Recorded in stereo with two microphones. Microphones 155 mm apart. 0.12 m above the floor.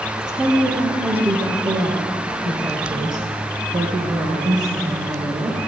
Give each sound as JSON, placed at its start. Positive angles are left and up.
{"t": 0.2, "sound": "a woman speaking", "side_deg": -25, "distance_m": 3.0}